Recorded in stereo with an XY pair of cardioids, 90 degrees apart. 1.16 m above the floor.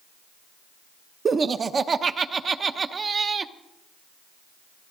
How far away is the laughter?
About 0.9 m.